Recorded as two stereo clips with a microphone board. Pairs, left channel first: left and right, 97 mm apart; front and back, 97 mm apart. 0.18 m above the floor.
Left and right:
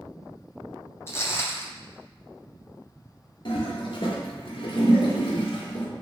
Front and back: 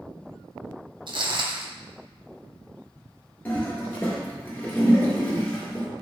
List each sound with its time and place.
1.1 s footsteps: 150° left, 0.5 m
3.5 s a toilet flushing: 70° left, 1.0 m